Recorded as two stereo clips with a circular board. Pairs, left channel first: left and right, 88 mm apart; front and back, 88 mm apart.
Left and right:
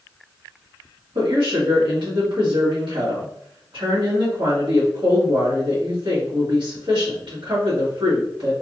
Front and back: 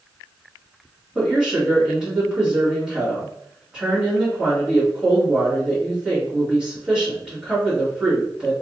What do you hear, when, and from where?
1.1 s a woman speaking: 95° right, 1.6 m